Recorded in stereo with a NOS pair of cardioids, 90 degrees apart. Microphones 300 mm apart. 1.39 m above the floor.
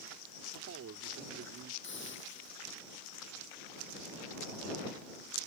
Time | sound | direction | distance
0.5 | a man speaking | 55° right | ?
1.8 | a hiss | 40° left | ?